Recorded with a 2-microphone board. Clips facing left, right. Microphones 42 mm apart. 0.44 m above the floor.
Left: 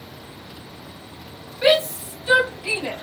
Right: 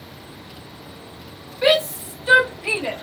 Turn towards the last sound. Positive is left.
turn(degrees=-35)  # may be behind; listen again after turning